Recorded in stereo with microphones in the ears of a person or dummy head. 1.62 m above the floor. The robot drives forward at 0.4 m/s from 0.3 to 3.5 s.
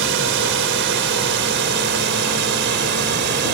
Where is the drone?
65° right (ahead or behind); by 3.5 s 60° right (ahead or behind).